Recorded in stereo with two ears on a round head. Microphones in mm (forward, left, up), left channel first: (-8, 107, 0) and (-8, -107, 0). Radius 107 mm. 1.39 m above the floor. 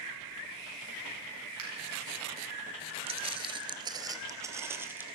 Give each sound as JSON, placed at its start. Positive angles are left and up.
{"t": 1.6, "sound": "a finger snap", "side_deg": -80, "distance_m": 8.5}
{"t": 3.1, "sound": "footsteps", "side_deg": -25, "distance_m": 1.4}